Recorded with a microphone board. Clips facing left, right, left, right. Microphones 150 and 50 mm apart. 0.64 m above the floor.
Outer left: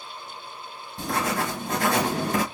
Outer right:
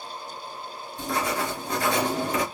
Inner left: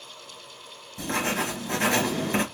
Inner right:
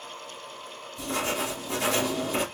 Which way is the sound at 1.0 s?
45° left (ahead or behind).